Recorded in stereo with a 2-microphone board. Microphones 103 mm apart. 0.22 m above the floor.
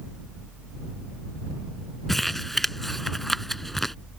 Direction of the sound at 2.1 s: 5° left (ahead or behind).